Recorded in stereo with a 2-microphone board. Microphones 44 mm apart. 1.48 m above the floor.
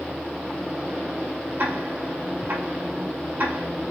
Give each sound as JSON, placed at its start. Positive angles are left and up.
{"t": 1.6, "sound": "ticking", "side_deg": -45, "distance_m": 1.7}